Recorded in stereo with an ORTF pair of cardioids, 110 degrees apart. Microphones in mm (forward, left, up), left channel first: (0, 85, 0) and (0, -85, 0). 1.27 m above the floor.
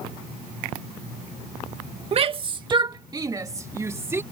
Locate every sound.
2.1 s a shout: 35° right; by 4.2 s 15° right